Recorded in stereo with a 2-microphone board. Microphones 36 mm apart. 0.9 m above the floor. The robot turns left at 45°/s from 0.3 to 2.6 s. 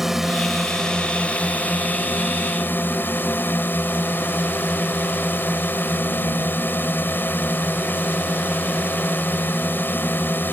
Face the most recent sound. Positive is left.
turn(degrees=85)